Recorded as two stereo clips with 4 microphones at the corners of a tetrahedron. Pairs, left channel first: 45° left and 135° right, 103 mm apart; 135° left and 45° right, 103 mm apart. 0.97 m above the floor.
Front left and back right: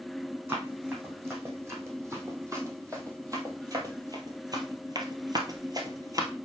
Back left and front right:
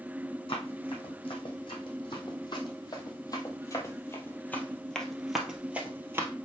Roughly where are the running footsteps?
Behind.